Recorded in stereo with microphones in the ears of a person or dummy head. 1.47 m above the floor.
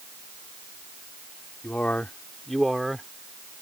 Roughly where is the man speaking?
Centre.